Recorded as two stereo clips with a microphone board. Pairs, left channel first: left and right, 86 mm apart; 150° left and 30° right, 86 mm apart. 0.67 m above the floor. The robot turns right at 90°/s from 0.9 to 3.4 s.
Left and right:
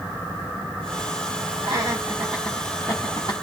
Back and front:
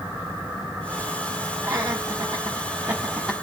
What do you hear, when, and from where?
1.6 s laughter: 85° right, 1.2 m; by 3.3 s 65° left, 1.2 m